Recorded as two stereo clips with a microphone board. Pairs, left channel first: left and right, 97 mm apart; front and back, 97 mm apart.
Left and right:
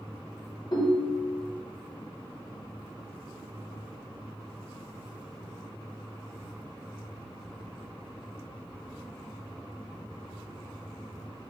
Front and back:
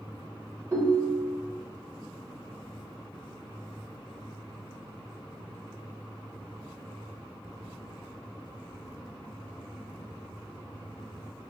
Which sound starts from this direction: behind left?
A ringtone, at 0.7 s.